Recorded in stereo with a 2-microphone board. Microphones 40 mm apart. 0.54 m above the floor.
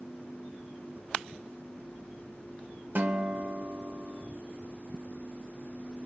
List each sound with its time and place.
3.0 s a guitar: 55° right (ahead or behind), 2.0 m